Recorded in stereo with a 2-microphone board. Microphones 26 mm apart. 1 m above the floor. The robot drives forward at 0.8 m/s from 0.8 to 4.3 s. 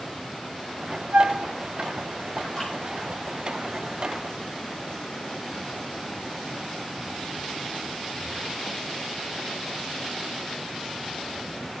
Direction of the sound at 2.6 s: 35° left (ahead or behind).